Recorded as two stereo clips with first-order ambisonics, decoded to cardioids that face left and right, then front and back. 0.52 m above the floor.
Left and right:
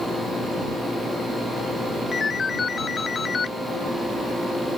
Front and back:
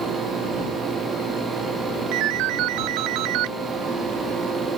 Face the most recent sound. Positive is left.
turn(degrees=160)